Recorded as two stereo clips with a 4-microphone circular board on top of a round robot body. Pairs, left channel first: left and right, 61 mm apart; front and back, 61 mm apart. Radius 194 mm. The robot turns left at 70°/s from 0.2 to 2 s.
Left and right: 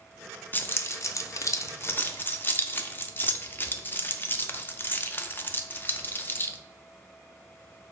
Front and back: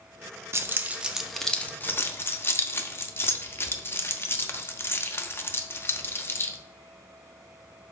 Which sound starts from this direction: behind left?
Keys jangling, at 0.5 s.